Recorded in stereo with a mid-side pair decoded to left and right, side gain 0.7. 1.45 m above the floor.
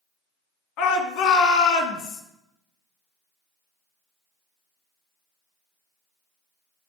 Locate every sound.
0.8 s a shout: 65° left, 2 m